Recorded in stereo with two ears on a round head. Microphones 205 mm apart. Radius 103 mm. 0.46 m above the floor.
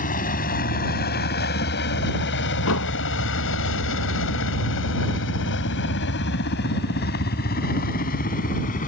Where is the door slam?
70° left (ahead or behind).